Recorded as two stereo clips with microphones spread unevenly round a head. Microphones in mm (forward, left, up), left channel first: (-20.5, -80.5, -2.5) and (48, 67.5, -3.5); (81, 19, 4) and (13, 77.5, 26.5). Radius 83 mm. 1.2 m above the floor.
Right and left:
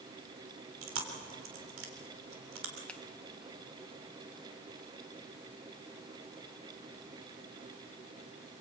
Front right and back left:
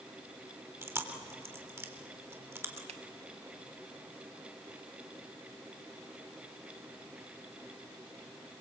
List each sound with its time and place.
0.8 s chewing: 80° left, 3.5 m
2.9 s a finger snap: 160° left, 1.1 m